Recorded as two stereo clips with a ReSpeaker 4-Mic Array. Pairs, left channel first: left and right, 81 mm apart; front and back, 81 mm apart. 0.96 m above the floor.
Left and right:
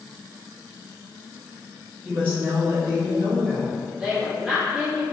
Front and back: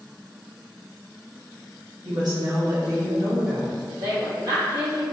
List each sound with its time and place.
2.0 s a woman speaking: 155° right, 1.3 m; by 3.8 s 140° right, 3 m
4.0 s a woman speaking: 170° right, 1.9 m